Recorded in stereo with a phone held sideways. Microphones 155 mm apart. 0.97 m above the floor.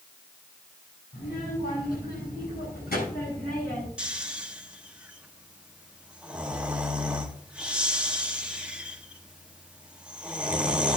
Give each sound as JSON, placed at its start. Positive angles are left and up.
{"t": 1.1, "sound": "a child speaking", "side_deg": 85, "distance_m": 7.5}
{"t": 4.0, "sound": "snoring", "side_deg": -5, "distance_m": 1.1}